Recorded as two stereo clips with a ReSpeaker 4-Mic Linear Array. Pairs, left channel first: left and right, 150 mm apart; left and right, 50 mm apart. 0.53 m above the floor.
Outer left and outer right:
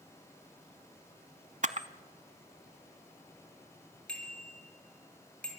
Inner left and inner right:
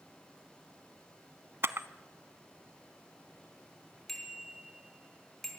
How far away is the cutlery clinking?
No cutlery clinking in this recording.